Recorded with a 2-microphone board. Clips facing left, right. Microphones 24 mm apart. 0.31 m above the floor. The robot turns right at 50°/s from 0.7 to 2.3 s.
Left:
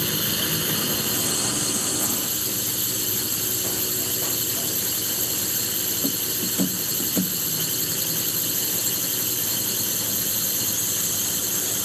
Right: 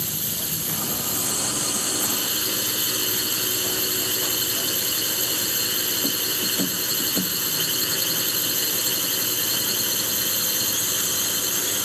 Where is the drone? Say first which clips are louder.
Left 5 dB; 130° left; by 11.8 s 150° right.